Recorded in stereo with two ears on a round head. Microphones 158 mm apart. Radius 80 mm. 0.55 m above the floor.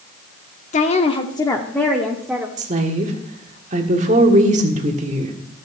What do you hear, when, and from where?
0.7 s a woman speaking: 45° left (ahead or behind), 0.9 m; by 2.5 s 5° right (ahead or behind), 1.2 m
2.6 s a woman speaking: 40° right (ahead or behind), 1.6 m